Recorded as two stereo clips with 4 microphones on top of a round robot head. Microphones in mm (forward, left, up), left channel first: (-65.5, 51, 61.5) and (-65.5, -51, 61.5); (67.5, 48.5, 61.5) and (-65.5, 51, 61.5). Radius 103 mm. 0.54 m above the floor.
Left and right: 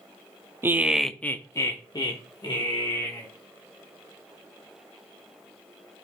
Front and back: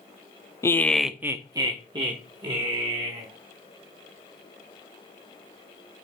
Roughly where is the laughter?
Ahead right.